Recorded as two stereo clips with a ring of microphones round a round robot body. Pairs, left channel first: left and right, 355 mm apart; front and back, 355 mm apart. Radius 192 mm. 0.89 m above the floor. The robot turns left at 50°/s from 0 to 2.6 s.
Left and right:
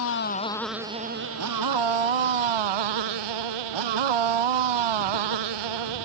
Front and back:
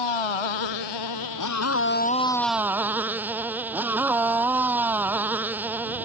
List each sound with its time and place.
0.0 s a motorcycle: 35° left; by 6.0 s 95° right